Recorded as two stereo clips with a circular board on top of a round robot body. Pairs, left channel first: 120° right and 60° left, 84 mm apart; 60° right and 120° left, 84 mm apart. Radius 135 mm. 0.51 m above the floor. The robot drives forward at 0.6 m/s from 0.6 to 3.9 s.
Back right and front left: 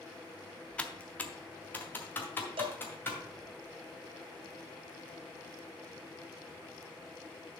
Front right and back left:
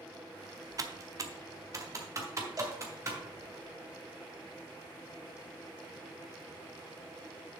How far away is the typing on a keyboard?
About 1.0 m.